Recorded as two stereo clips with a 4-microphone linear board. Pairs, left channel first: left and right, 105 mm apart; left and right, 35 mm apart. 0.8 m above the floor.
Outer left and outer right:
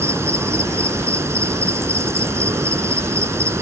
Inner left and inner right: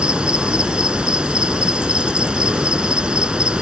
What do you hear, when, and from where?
0.0 s an insect: 25° right (ahead or behind)